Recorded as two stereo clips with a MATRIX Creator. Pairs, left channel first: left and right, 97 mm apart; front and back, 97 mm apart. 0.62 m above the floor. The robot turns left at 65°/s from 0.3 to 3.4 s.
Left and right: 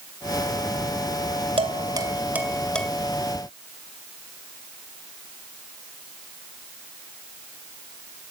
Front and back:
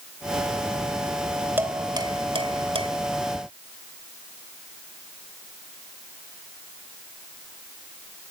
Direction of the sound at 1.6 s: 110° right.